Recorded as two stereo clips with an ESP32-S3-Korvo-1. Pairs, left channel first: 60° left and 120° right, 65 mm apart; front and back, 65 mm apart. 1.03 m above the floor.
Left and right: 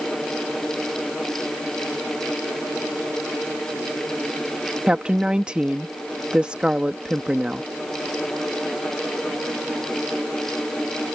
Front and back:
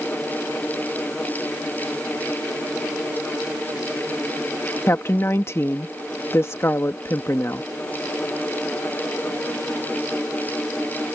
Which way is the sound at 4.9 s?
45° right.